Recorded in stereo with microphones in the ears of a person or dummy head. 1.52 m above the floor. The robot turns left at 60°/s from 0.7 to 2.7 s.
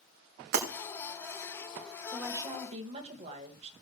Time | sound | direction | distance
0.5 | breaking glass | 65° right (ahead or behind) | 2.5 m
2.1 | a woman speaking | straight ahead | 1.6 m